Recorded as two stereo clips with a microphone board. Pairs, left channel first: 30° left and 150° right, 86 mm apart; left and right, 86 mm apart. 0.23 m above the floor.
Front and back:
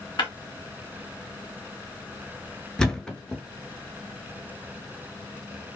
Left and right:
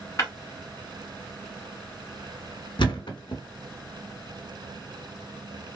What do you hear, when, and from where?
0.2 s breaking glass: 40° left, 1.4 m
2.8 s a thud: 115° left, 0.7 m